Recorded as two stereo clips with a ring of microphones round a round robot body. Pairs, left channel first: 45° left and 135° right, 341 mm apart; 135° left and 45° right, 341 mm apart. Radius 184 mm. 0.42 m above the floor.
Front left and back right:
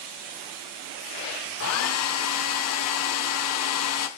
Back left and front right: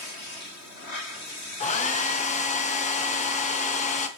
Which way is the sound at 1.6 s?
70° left.